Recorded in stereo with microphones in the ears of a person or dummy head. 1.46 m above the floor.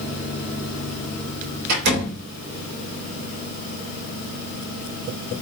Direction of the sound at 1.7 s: 60° right (ahead or behind).